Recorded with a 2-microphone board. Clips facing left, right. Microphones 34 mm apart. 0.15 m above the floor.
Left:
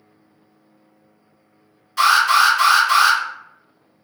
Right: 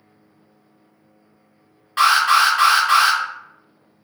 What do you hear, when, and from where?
2.0 s an alarm: 45° right (ahead or behind), 1.5 m